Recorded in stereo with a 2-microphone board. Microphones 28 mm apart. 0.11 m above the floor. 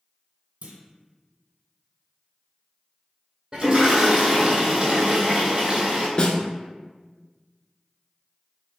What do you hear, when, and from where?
0.6 s a clunk: 50° right (ahead or behind), 0.9 m
3.5 s a toilet flushing: 25° right (ahead or behind), 1.9 m
6.2 s a snare drum: 35° left (ahead or behind), 0.7 m